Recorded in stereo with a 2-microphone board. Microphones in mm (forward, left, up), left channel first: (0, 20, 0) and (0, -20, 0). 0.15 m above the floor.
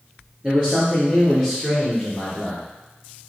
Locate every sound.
0.4 s a man speaking: 30° right (ahead or behind), 3 m; by 2.6 s 5° right (ahead or behind), 3 m